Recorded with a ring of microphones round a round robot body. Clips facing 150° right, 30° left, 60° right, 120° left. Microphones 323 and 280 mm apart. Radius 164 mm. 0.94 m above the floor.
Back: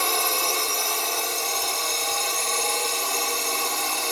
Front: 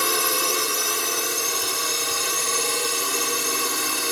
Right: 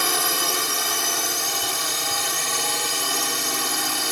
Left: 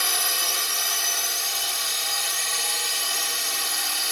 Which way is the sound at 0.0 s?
40° right.